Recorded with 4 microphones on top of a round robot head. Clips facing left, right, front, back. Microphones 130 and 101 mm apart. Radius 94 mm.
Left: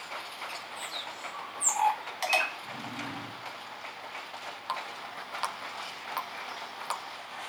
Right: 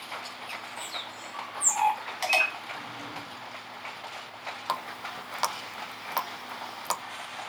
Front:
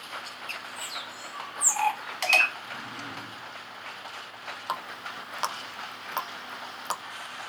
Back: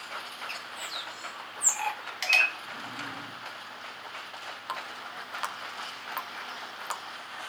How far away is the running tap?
About 0.5 m.